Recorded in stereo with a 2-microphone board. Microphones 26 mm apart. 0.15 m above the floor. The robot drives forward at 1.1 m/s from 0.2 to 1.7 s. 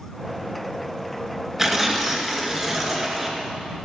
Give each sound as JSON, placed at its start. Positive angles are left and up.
{"t": 1.6, "sound": "tearing paper", "side_deg": -20, "distance_m": 2.0}